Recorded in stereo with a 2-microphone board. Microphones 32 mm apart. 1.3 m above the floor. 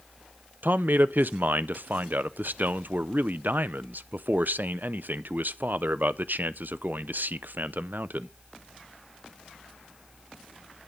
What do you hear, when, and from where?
0.6 s a man speaking: 70° right (ahead or behind), 0.5 m